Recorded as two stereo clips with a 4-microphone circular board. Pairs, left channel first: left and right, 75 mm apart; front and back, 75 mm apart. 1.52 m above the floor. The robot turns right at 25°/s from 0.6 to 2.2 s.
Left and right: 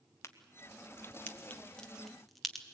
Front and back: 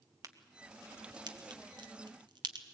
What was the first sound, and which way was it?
A crack, 140° left.